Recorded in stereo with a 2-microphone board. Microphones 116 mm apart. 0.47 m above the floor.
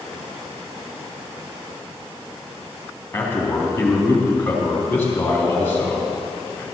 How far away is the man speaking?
About 3.5 m.